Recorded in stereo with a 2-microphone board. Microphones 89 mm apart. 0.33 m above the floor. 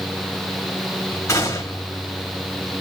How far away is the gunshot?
About 1.8 m.